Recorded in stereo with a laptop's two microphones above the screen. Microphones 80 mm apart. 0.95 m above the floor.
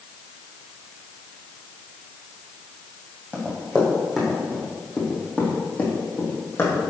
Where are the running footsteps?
15° right (ahead or behind), 2 m; by 6.8 s 35° left (ahead or behind), 2 m.